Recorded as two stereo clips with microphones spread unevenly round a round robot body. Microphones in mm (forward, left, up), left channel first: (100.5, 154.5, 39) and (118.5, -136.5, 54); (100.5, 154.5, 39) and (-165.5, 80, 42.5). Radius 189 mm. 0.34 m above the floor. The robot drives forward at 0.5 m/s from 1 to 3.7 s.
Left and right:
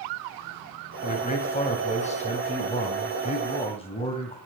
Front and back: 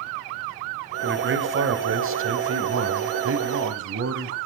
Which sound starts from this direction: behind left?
A man speaking, at 1.0 s.